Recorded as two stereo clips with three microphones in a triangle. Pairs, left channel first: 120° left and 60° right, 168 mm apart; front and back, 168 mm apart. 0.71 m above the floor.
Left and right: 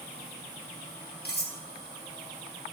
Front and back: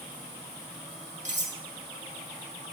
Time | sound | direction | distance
1.2 | cutlery clinking | 140° left | 1.0 m